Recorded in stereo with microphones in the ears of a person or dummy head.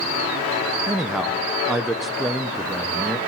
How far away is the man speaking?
About 0.7 m.